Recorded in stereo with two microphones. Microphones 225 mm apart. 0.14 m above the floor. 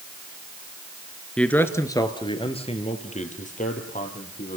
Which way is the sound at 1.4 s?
5° left (ahead or behind).